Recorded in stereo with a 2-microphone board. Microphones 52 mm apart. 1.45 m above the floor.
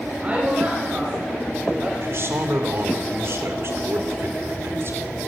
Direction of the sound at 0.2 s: 25° right (ahead or behind).